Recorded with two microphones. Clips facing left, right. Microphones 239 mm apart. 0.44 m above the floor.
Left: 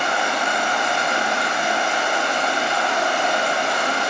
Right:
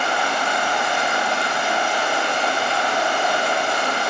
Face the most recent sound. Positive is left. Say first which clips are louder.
# even
turn(degrees=30)  # may be behind; listen again after turning